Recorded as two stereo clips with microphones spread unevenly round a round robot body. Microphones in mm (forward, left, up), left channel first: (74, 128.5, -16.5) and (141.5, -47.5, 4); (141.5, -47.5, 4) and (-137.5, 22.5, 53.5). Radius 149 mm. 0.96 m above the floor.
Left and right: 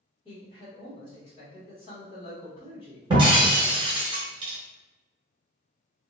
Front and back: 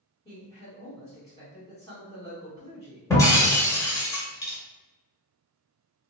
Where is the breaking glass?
100° right, 0.6 m.